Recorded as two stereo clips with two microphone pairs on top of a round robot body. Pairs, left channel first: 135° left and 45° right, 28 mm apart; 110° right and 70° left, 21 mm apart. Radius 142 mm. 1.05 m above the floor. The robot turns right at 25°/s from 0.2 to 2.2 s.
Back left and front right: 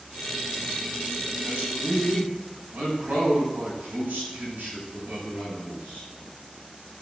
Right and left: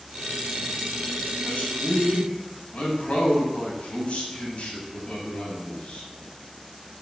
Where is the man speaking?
85° right, 7 m; by 6.1 s 70° right, 7 m.